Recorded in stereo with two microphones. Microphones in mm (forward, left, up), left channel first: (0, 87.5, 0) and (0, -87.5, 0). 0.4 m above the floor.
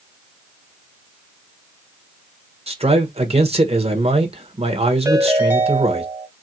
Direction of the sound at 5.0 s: 15° right (ahead or behind).